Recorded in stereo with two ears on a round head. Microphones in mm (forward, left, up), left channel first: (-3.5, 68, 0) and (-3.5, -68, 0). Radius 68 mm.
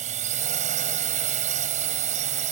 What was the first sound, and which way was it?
A drone, 50° right (ahead or behind).